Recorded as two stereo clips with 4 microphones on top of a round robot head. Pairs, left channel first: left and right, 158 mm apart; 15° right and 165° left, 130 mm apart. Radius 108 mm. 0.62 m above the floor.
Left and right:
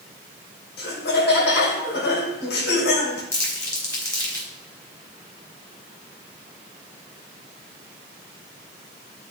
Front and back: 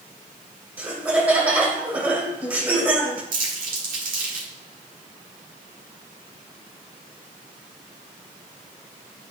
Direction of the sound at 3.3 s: 165° left.